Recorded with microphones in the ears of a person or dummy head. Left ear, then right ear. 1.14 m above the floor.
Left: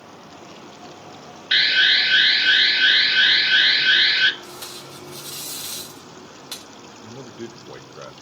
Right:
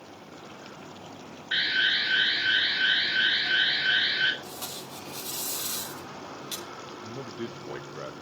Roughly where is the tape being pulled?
Centre.